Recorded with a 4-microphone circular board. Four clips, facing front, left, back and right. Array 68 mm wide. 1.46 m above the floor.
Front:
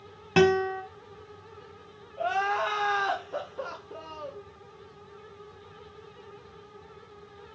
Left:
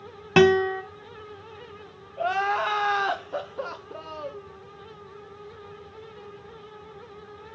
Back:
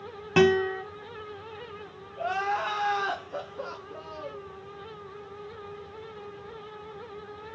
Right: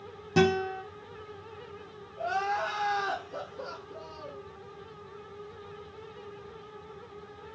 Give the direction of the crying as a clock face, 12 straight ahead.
9 o'clock.